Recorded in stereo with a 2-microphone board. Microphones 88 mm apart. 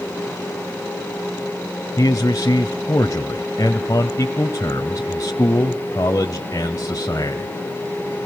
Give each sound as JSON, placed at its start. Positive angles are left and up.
{"t": 2.0, "sound": "a man speaking", "side_deg": 40, "distance_m": 1.3}